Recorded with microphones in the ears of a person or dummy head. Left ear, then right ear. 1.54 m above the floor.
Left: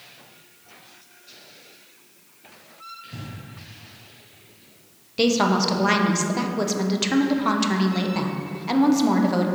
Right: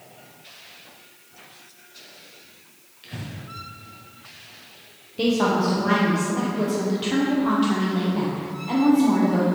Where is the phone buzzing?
I don't hear a phone buzzing.